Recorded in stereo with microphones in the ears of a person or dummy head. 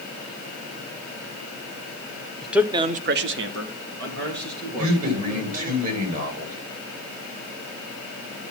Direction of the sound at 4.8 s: 40° right (ahead or behind).